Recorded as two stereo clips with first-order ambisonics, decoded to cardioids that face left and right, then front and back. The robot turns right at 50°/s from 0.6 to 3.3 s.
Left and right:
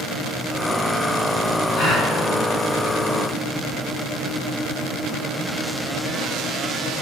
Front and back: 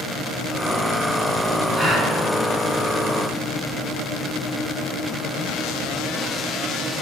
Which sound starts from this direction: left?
A gasp, at 1.7 s.